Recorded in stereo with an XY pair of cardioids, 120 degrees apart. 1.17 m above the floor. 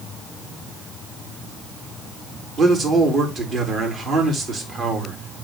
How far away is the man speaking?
About 3 m.